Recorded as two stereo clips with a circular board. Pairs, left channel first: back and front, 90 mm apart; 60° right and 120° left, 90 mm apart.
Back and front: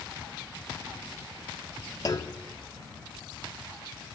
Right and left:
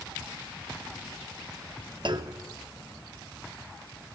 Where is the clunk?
140° left, 0.7 m.